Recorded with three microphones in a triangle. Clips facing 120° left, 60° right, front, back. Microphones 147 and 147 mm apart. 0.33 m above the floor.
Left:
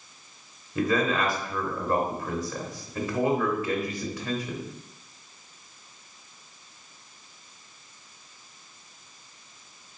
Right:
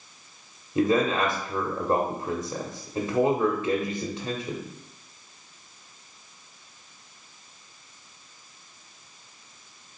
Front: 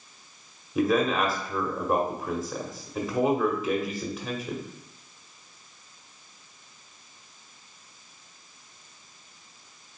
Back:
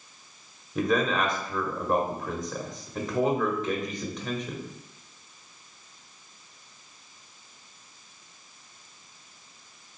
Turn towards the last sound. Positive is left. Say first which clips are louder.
# right 3 dB, front 2 dB
turn(degrees=-75)